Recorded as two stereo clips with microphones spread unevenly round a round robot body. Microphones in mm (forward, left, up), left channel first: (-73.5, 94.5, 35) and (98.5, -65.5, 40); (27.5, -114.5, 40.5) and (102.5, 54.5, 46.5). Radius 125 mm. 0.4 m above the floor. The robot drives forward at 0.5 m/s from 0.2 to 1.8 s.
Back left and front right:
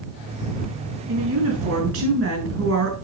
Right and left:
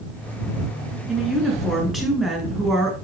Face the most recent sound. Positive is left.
turn(degrees=-25)